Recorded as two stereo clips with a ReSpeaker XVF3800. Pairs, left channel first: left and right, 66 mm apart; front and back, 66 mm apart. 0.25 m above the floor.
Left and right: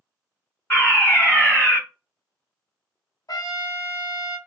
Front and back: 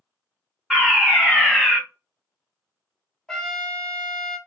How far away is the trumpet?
About 1.1 m.